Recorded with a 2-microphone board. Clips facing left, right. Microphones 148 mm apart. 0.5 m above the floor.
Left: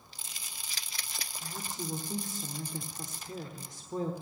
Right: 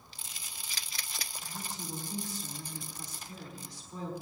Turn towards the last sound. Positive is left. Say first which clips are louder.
# left 5 dB
turn(degrees=50)  # may be behind; listen again after turning